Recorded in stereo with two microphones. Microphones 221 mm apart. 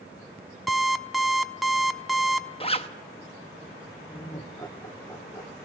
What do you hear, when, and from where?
0.7 s an alarm clock: centre (ahead or behind), 0.8 m
2.6 s a zipper: 25° left (ahead or behind), 0.9 m
4.1 s laughter: 15° left (ahead or behind), 1.1 m